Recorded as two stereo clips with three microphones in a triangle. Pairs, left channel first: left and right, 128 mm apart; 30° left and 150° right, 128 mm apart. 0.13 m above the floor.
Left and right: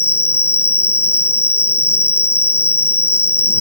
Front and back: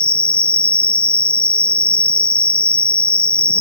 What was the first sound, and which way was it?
An insect, 170° right.